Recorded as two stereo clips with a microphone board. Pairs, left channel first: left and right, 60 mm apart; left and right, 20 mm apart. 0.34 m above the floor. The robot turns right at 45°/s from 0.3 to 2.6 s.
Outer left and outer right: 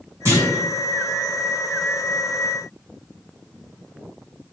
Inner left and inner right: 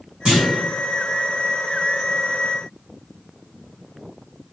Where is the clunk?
45° right (ahead or behind), 1.8 m.